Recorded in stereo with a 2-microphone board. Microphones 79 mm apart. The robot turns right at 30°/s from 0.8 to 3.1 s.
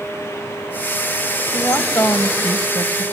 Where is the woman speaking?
45° left, 1.5 m; by 3.0 s 90° left, 1.5 m.